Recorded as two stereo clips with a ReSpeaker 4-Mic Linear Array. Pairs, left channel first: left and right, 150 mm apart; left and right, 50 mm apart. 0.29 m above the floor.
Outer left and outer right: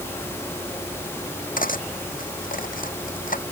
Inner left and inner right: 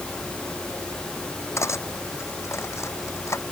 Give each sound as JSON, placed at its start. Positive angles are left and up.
{"t": 1.6, "sound": "cutlery clinking", "side_deg": 65}